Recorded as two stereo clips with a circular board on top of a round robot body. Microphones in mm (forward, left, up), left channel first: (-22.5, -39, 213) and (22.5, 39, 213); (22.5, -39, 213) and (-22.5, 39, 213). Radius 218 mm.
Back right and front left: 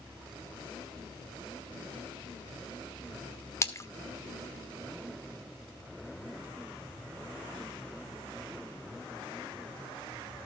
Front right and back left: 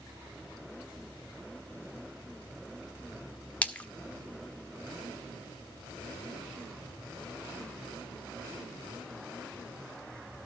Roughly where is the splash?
Behind right.